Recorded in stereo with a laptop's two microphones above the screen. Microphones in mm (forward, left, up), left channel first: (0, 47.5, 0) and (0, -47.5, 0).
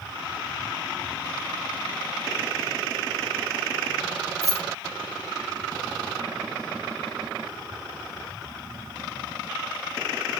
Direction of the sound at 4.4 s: 35° right (ahead or behind).